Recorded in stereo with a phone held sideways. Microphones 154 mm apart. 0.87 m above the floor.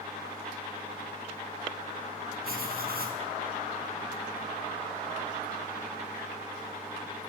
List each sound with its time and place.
2.4 s writing: 80° right, 5 m